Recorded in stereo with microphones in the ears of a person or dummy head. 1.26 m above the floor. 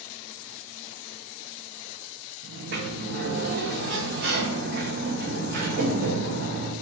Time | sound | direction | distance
2.4 | a sliding door | 50° right (ahead or behind) | 1.6 m